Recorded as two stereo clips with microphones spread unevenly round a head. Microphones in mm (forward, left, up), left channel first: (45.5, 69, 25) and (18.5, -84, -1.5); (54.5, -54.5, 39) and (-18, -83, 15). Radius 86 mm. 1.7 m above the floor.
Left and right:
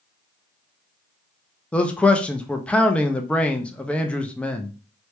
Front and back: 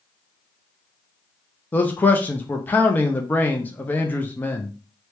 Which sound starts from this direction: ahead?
A man speaking, at 1.7 s.